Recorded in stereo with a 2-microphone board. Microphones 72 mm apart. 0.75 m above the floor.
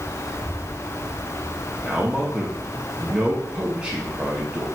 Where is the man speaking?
20° right (ahead or behind), 0.9 m.